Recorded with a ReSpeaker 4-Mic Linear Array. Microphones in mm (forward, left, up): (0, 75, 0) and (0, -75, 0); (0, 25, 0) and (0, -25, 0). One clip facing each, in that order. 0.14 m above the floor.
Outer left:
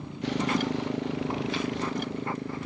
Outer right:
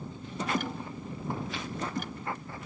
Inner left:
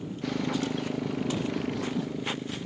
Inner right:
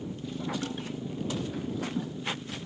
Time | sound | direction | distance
0.0 | a motorcycle | 85° left | ?